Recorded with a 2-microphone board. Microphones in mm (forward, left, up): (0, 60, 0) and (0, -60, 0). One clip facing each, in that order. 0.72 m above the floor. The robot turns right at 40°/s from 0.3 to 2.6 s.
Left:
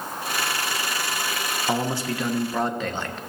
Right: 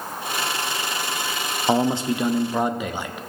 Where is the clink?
I don't hear a clink.